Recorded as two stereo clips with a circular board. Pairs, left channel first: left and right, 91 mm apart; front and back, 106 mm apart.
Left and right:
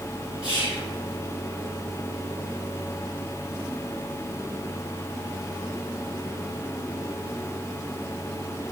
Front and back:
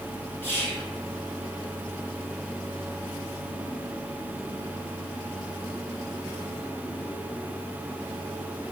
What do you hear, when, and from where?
0.4 s whispering: 30° right, 1.2 m